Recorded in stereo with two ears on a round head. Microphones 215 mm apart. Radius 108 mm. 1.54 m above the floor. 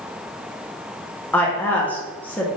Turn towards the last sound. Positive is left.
turn(degrees=5)  # may be behind; listen again after turning